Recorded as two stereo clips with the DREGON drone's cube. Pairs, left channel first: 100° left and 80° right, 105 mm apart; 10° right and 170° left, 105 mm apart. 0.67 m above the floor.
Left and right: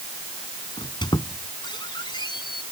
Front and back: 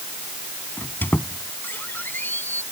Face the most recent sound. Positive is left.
turn(degrees=60)